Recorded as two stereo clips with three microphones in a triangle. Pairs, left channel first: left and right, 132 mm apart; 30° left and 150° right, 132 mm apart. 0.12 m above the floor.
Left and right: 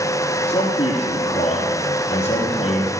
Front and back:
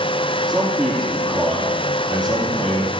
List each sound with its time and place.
0.5 s a man speaking: 130° left, 3.5 m